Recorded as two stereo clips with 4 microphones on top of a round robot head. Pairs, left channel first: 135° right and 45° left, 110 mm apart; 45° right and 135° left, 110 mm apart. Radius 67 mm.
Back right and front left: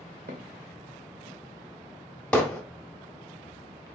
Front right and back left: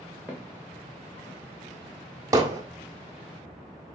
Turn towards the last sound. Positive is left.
turn(degrees=155)